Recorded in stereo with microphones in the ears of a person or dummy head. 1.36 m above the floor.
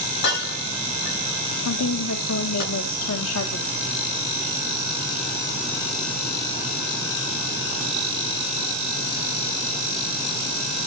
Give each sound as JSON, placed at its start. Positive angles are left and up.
{"t": 0.2, "sound": "breaking glass", "side_deg": 55, "distance_m": 8.5}
{"t": 1.6, "sound": "a woman speaking", "side_deg": 85, "distance_m": 1.4}